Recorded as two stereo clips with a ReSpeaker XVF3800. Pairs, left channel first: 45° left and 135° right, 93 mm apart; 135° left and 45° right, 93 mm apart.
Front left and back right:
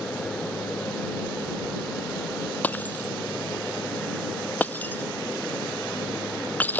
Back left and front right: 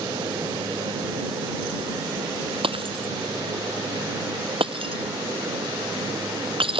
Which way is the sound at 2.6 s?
30° right.